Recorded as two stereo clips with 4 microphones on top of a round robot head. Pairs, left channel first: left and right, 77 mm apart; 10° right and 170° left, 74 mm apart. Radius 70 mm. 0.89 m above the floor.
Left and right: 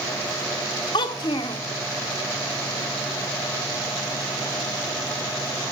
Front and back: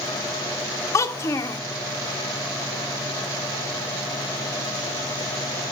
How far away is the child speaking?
About 0.7 m.